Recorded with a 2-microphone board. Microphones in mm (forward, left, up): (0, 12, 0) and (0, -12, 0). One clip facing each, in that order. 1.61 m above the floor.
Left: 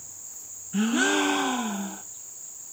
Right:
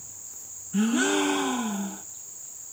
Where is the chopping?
I don't hear chopping.